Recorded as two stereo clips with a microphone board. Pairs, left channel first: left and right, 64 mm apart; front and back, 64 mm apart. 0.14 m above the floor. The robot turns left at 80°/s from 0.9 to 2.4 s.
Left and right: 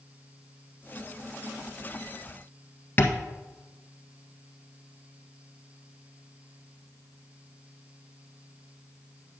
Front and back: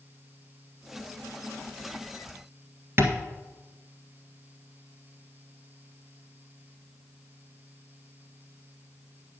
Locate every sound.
3.0 s tapping: 140° left, 1.4 m